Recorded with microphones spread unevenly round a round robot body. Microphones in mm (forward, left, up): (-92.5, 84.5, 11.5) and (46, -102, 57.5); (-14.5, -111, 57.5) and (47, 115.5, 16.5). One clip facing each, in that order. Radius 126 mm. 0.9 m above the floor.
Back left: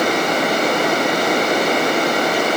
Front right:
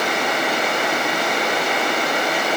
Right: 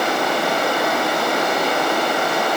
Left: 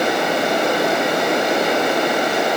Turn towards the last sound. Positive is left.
No sound to turn to.